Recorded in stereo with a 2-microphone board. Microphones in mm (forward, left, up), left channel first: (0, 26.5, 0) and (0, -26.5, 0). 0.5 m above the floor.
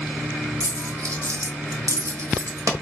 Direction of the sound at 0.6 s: 75° right (ahead or behind).